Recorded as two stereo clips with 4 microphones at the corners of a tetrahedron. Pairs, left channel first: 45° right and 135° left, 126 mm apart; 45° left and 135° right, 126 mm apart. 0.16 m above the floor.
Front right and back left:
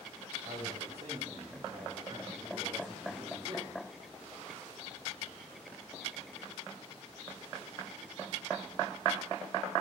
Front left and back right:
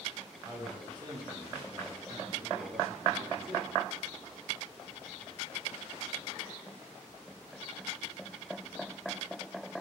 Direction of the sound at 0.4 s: 160° left.